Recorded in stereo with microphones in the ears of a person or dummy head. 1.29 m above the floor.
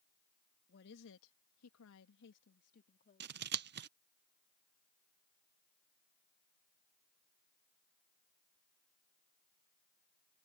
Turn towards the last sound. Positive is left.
turn(degrees=-55)  # may be behind; listen again after turning